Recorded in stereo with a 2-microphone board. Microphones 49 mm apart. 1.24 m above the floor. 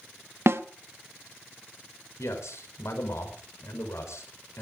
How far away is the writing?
I don't hear writing.